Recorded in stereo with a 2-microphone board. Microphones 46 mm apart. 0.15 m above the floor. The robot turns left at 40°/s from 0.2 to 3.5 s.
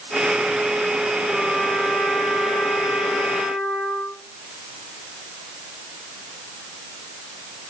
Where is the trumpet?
20° left, 4 m; by 4.2 s 70° right, 4 m.